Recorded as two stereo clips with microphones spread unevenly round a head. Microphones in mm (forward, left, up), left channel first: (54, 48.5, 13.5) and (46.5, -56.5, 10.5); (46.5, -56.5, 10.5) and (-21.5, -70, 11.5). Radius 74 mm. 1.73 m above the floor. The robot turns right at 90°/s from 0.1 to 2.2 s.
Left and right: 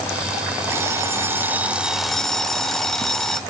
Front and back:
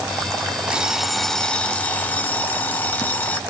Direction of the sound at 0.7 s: 125° right.